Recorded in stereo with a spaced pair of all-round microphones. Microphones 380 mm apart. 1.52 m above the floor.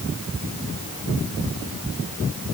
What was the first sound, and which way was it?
Only background noise.